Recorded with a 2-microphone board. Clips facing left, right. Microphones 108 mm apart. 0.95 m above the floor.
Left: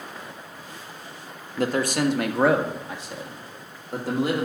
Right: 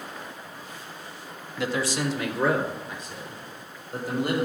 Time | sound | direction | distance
1.6 | a man speaking | 40° left (ahead or behind) | 0.9 m